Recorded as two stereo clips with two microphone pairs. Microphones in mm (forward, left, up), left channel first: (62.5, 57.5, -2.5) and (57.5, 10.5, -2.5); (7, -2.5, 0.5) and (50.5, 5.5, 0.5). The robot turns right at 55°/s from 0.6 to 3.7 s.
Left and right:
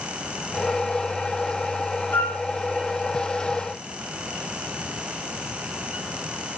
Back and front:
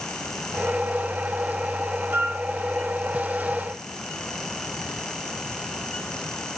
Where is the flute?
35° left, 2 m; by 2.4 s 50° left, 2 m.